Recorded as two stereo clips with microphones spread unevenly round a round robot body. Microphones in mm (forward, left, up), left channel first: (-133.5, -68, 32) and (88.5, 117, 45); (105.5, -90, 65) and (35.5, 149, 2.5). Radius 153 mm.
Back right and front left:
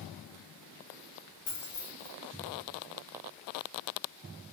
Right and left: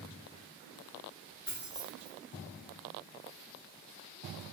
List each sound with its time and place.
1.5 s keys jangling: 160° right, 1.6 m